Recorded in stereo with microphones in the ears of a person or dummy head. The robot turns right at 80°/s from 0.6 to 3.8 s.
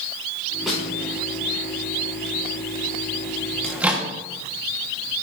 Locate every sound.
0.7 s a snare drum: 5° right (ahead or behind), 5 m; by 0.8 s 10° left (ahead or behind), 5 m
3.6 s a microwave: 5° left (ahead or behind), 1.4 m; by 4.1 s 10° right (ahead or behind), 1.4 m